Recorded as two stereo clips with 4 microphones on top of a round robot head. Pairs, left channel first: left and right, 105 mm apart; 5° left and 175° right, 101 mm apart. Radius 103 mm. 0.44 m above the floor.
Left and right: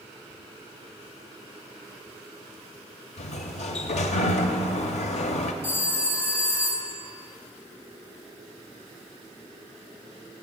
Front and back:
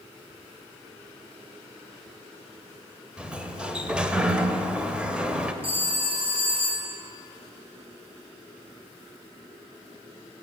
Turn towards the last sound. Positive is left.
turn(degrees=160)